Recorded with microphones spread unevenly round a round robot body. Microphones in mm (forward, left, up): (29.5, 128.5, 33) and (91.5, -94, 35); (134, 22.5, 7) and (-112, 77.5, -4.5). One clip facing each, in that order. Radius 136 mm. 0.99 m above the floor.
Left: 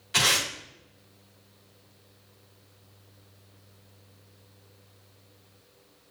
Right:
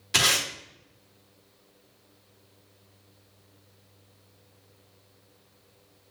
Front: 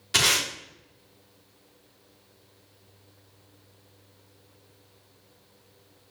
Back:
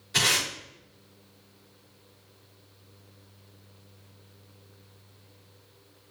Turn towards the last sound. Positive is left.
turn(degrees=-40)